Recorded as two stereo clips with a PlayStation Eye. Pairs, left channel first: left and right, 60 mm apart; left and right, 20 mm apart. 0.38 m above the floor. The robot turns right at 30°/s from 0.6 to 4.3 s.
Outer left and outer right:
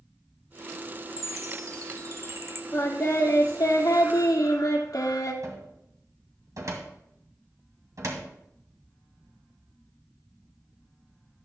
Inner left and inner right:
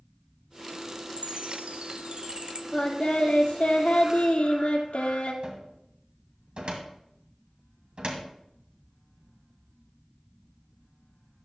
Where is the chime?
70° right (ahead or behind), 0.8 m; by 2.6 s 45° right (ahead or behind), 0.8 m.